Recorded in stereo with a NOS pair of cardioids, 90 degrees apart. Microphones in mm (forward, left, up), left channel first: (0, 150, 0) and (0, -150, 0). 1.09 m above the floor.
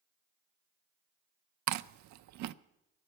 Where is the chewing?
60° right, 0.5 m.